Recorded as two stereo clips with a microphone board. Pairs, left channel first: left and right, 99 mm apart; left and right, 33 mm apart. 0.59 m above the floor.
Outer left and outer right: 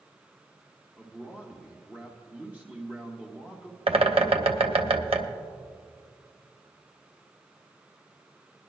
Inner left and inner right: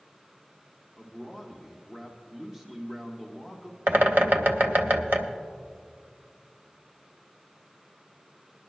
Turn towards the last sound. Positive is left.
turn(degrees=-80)